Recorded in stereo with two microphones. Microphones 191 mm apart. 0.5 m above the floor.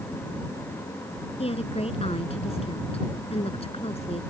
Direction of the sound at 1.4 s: 30° left (ahead or behind).